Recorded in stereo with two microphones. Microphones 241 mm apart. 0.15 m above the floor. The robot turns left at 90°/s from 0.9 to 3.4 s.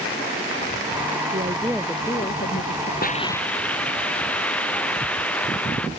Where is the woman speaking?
135° right; by 2.9 s 85° left.